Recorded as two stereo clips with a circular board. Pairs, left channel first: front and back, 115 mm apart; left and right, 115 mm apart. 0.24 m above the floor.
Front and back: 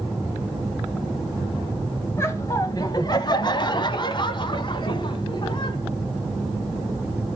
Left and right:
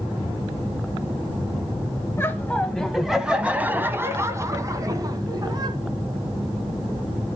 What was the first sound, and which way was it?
Laughter, 40° left.